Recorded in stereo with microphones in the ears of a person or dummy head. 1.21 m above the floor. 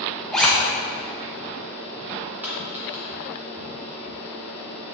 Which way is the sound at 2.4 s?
10° right (ahead or behind).